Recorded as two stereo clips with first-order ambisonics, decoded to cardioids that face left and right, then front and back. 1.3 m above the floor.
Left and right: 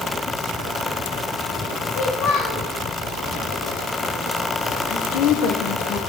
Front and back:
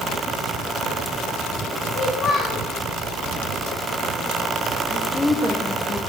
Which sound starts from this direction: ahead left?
A child speaking, at 1.9 s.